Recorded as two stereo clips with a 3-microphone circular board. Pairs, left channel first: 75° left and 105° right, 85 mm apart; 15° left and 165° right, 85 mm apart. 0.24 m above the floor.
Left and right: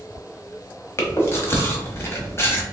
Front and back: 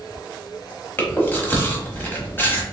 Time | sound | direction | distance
1.0 | chewing | 55° left | 0.9 m